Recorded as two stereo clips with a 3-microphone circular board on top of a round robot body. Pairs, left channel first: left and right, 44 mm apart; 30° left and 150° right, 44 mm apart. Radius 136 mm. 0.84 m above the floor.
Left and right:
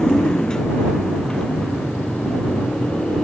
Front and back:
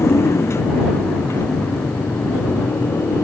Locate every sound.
0.0 s a motorcycle: 15° left